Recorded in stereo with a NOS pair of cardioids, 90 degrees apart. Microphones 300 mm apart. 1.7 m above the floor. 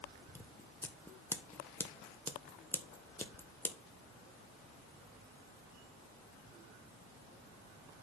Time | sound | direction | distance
0.3 | scissors | 5° left | 1.1 m